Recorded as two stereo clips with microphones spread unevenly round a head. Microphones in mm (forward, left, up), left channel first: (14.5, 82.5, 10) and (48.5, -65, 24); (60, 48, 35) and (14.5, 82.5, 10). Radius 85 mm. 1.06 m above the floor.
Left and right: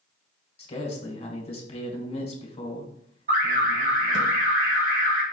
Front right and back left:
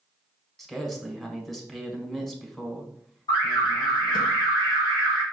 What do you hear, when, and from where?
0.6 s a man speaking: 60° left, 1.4 m
3.3 s an alarm: 55° right, 1.8 m